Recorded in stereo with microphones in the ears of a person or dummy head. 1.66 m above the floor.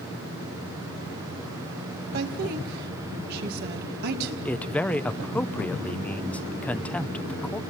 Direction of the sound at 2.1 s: 55° right (ahead or behind).